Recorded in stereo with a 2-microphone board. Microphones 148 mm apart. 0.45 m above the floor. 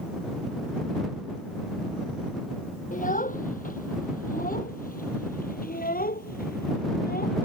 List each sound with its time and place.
2.9 s a child speaking: 65° left (ahead or behind); by 7.5 s 85° left